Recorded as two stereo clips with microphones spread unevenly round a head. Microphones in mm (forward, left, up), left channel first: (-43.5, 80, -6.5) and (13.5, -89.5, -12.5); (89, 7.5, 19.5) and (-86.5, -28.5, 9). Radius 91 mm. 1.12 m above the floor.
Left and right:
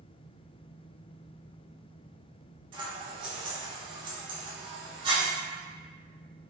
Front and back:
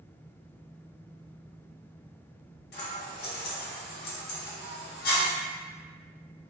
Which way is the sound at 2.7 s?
10° right.